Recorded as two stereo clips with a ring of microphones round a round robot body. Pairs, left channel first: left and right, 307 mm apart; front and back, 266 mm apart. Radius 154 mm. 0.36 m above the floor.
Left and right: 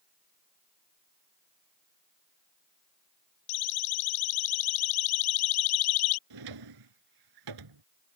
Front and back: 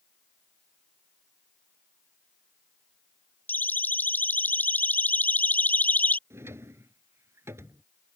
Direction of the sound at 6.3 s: 100° right.